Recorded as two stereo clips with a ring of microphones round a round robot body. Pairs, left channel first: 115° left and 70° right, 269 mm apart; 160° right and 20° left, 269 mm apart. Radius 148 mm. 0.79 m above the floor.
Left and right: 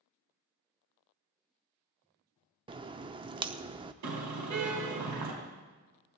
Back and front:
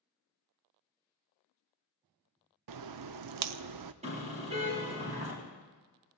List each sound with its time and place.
2.7 s a crack: 5° left, 0.5 m
4.0 s a car horn: 45° right, 4.5 m